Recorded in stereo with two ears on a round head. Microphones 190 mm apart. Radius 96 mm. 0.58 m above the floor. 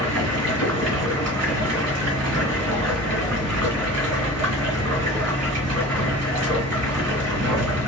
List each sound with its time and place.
0.0 s running water: 80° right, 1.8 m